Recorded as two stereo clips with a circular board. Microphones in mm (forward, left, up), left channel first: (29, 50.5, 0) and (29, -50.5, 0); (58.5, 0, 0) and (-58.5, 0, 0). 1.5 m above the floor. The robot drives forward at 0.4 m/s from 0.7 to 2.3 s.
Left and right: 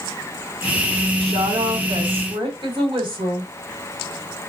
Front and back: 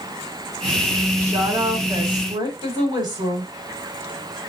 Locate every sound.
1.2 s a woman speaking: 110° right, 1.6 m; by 3.5 s 120° right, 1.8 m